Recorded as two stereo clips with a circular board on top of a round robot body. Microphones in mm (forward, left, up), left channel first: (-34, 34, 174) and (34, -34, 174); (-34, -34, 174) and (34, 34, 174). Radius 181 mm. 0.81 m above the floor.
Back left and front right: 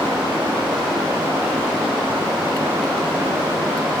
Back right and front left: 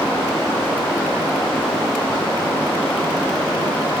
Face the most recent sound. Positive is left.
No sound to turn to.